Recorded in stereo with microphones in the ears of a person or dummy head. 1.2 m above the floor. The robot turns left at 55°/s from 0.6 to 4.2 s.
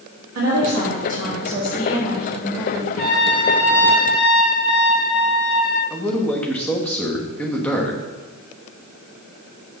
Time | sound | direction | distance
0.3 | a woman speaking | 90° right | 1.9 m
3.0 | a trumpet | 170° left | 2 m
5.9 | a man speaking | 10° left (ahead or behind) | 1.2 m